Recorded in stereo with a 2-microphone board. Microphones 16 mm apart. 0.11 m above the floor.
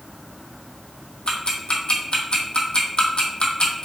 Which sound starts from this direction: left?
Ticking, at 1.3 s.